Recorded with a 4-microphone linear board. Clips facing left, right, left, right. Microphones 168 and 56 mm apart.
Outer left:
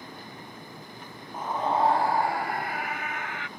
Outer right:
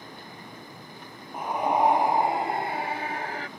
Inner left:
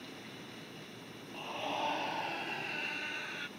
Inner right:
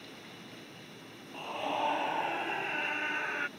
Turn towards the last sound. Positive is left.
turn(degrees=-40)  # may be behind; listen again after turning